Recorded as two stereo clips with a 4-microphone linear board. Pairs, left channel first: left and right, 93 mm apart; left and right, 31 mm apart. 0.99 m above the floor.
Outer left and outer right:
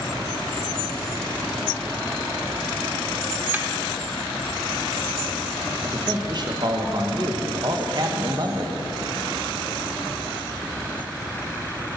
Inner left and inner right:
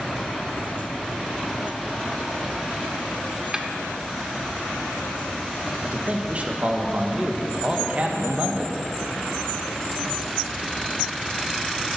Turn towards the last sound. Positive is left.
turn(degrees=-45)  # may be behind; listen again after turning